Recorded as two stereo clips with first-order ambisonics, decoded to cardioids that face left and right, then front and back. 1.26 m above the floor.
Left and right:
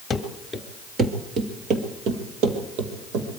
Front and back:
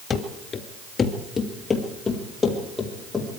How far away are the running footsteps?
About 1.3 m.